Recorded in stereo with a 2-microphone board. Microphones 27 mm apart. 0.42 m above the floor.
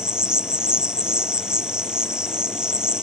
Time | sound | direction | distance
0.0 | an insect | 30° right (ahead or behind) | ?